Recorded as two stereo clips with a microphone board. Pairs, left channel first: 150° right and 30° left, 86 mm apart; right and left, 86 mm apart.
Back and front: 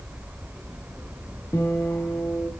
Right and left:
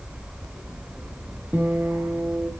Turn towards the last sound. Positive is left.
turn(degrees=155)